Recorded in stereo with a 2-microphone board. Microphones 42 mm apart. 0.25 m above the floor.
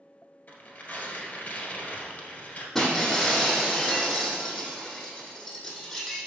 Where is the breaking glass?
10° left (ahead or behind), 1.9 m.